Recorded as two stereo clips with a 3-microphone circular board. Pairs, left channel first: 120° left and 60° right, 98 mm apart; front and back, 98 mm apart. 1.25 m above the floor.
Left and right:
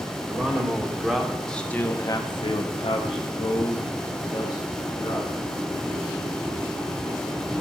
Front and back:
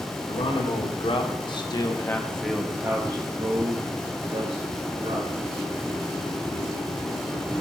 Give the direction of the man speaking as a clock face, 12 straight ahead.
12 o'clock.